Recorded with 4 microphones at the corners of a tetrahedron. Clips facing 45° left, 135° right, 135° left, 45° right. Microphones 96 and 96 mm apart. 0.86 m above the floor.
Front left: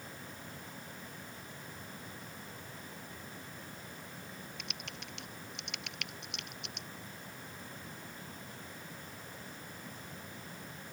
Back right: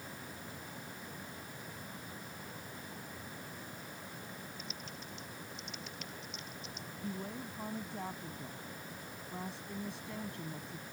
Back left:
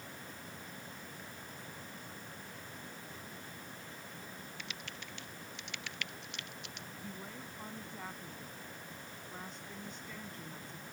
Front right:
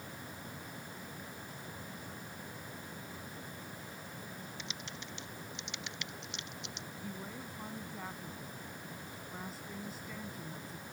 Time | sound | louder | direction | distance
4.6 | typing on a keyboard | even, front right 2 dB | 25° left | ?
7.0 | a woman speaking | back right 7 dB, front right 3 dB | 130° right | ?